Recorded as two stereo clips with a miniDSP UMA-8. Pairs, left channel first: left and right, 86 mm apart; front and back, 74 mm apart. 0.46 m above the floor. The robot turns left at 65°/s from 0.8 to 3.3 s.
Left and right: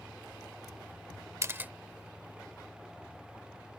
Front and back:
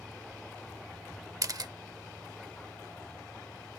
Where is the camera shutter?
140° right; by 1.7 s 160° right.